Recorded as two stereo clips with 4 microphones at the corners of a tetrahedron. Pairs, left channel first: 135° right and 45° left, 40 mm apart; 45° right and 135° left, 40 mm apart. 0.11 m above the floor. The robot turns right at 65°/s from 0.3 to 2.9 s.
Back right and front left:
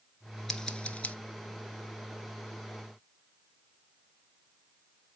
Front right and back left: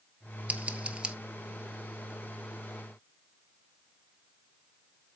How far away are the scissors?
About 1.1 m.